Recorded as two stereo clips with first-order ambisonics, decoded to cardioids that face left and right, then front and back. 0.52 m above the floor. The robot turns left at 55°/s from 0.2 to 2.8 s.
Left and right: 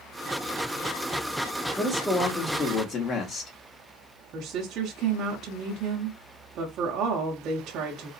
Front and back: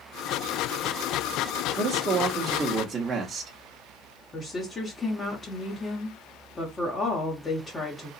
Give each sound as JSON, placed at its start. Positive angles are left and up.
{"t": 1.8, "sound": "a man speaking", "azimuth_deg": 175, "distance_m": 0.9}
{"t": 4.3, "sound": "a woman speaking", "azimuth_deg": -60, "distance_m": 0.9}